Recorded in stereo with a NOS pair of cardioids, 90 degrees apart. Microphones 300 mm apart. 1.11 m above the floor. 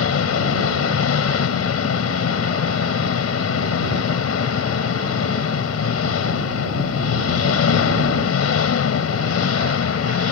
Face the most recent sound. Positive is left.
turn(degrees=55)